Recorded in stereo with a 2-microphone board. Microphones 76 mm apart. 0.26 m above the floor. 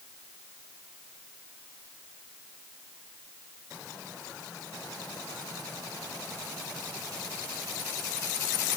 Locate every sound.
Only background noise.